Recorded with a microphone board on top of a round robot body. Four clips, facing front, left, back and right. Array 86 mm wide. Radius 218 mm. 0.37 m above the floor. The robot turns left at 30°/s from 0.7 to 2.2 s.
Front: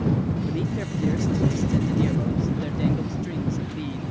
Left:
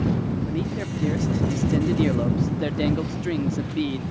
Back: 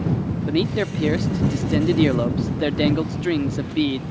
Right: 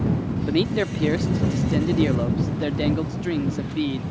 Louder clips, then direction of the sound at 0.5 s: Right 6 dB, back 6 dB; 130° right.